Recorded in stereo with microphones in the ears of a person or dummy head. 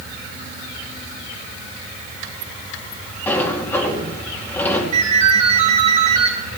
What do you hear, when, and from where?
3.3 s a sliding door: 10° left (ahead or behind), 2 m
4.9 s a ringtone: 45° right (ahead or behind), 3 m